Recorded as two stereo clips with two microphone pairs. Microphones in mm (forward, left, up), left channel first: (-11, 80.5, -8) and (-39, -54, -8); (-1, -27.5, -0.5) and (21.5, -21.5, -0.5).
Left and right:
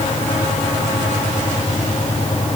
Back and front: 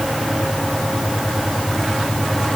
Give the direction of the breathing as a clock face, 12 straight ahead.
I don't hear breathing.